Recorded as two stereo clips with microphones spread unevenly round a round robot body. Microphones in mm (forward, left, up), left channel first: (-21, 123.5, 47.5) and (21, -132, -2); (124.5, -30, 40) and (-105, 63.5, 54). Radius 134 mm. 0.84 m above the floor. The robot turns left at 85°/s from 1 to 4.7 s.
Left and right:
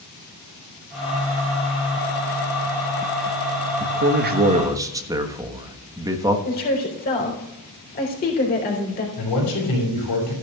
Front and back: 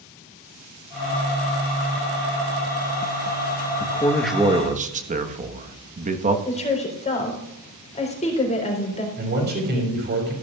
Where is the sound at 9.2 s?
110° left, 6 m.